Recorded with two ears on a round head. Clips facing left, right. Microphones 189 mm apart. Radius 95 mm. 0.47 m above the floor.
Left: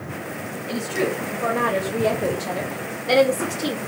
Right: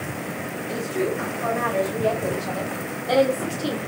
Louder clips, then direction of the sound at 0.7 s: Left 1 dB; 65° left (ahead or behind).